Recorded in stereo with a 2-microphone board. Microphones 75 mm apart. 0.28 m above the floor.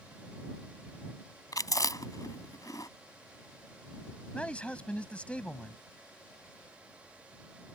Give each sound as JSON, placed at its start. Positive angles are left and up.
{"t": 1.5, "sound": "chewing", "side_deg": 55}
{"t": 4.3, "sound": "a man speaking", "side_deg": 15}